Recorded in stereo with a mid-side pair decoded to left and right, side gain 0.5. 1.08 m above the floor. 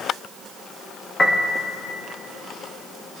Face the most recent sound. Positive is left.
turn(degrees=25)